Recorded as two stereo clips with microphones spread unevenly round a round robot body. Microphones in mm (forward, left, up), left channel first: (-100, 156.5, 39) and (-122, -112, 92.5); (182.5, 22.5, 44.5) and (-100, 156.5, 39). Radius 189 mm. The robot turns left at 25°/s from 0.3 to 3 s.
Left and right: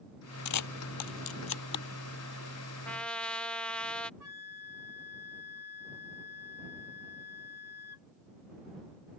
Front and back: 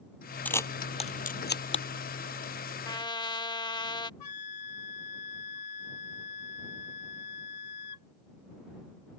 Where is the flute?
10° right.